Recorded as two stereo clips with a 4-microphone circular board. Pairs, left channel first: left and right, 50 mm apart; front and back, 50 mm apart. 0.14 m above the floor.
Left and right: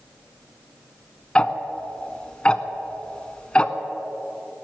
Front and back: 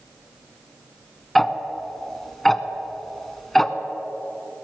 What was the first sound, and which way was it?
Ticking, 80° left.